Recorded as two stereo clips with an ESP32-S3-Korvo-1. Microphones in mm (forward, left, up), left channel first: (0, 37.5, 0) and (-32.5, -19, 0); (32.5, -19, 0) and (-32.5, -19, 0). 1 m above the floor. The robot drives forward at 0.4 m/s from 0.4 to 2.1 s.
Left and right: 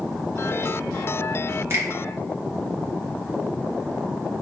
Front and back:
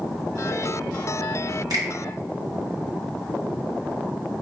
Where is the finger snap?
170° right, 1.1 m.